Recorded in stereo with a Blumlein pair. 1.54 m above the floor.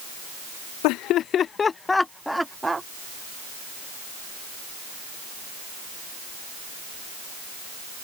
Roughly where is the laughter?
Ahead left.